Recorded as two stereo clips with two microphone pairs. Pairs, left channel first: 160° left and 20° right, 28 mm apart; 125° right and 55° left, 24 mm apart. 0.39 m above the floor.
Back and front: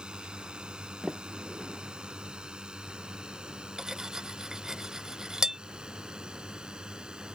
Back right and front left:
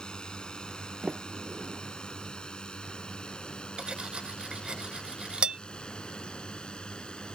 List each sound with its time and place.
0.0 s a drone: 75° right
1.0 s a sliding door: 30° left
3.8 s cutlery clinking: 35° left